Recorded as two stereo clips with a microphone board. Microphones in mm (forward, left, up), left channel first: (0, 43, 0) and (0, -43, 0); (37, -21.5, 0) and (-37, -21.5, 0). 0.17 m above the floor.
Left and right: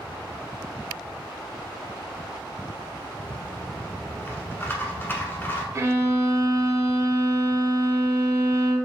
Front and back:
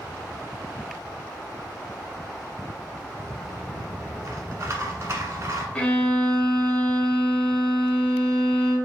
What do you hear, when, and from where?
3.2 s a rattle: 145° left, 1.2 m
5.8 s a violin: 65° right, 0.7 m